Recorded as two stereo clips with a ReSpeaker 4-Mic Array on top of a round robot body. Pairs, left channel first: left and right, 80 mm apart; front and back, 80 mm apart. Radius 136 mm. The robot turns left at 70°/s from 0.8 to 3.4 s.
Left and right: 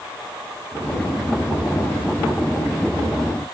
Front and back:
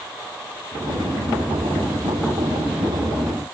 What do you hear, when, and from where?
Only background noise.